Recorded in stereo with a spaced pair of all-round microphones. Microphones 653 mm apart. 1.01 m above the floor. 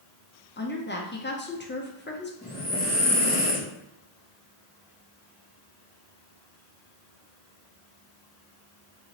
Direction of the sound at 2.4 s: 5° right (ahead or behind).